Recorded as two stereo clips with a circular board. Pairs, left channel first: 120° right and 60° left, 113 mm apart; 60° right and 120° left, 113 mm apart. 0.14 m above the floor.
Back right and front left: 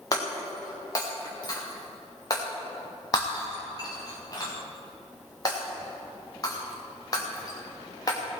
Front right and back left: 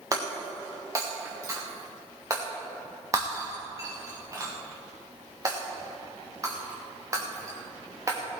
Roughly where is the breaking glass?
Behind.